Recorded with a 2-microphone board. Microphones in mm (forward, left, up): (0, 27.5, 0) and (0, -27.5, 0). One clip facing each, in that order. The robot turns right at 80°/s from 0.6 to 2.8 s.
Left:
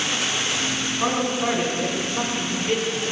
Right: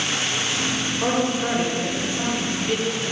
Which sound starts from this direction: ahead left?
A man speaking, at 1.0 s.